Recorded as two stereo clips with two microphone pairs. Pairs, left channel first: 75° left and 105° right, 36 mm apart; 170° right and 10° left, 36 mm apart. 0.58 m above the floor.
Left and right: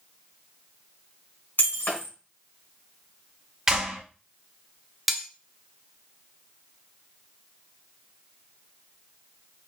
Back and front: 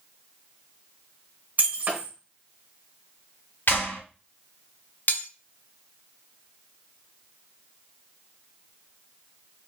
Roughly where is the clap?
Behind.